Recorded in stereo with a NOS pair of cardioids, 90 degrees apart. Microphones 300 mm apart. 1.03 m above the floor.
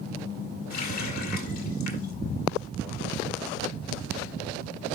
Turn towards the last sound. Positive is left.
turn(degrees=70)